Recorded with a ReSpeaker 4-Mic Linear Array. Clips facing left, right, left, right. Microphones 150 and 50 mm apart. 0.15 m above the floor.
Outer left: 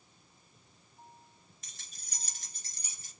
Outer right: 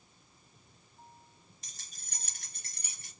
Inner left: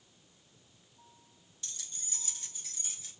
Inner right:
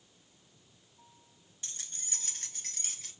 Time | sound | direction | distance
1.6 | keys jangling | 35° right (ahead or behind) | 1.1 m